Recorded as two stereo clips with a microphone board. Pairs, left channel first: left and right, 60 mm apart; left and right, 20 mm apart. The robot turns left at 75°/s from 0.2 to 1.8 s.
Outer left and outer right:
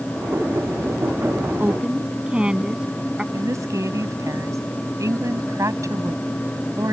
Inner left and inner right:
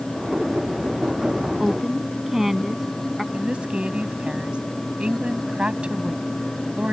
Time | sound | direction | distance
1.6 | a woman speaking | 30° right (ahead or behind) | ?
3.3 | a woman speaking | 60° right (ahead or behind) | ?